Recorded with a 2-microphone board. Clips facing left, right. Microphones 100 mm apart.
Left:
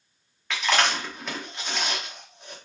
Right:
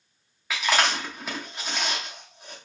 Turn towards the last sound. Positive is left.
turn(degrees=-5)  # may be behind; listen again after turning